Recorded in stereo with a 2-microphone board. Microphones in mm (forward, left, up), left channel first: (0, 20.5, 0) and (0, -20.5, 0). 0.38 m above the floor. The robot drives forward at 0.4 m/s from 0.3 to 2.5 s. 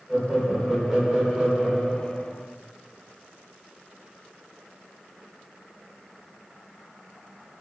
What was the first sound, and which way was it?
Laughter, 5° right (ahead or behind).